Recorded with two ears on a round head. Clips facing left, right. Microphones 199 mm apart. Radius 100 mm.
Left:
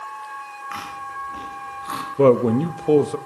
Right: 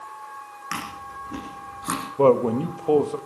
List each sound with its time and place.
0.7 s chewing: 60° right (ahead or behind), 9.5 m
2.2 s a man speaking: 25° left (ahead or behind), 1.2 m